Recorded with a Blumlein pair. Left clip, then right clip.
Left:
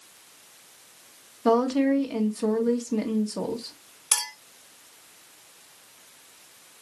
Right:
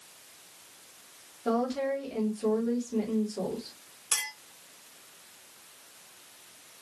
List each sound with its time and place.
1.4 s a woman speaking: 35° left, 1.4 m
4.1 s a clink: 20° left, 1.8 m